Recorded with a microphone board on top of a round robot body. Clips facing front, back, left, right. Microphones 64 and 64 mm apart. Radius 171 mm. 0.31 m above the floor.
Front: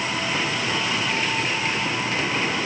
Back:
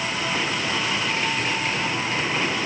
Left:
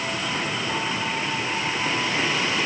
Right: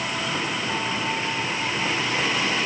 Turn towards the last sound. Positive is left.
No sound to turn to.